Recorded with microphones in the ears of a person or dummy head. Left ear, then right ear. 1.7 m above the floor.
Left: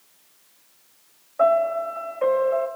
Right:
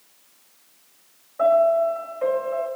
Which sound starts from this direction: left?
A piano, at 1.4 s.